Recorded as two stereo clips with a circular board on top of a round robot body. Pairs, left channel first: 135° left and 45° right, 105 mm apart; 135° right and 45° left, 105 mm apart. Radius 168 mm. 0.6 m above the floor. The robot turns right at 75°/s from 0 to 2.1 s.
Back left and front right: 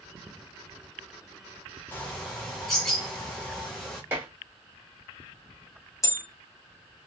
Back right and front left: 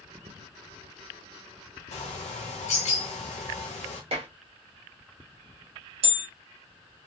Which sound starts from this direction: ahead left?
Dishes clattering, at 4.1 s.